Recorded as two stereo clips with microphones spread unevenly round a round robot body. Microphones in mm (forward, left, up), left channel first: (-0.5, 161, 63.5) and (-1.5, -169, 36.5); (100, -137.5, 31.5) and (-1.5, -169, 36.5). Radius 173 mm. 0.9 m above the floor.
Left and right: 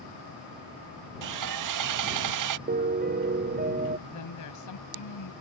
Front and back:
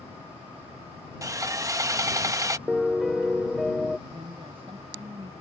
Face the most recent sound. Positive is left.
turn(degrees=130)